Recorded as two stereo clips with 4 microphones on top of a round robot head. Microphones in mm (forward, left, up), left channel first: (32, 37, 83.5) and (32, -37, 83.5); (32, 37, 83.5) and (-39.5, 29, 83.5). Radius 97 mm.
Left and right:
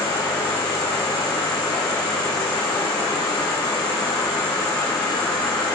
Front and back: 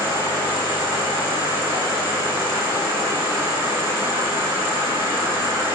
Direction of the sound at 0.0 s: 170° left.